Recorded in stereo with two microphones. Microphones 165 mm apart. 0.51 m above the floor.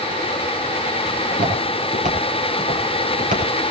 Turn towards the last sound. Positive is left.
turn(degrees=-55)  # may be behind; listen again after turning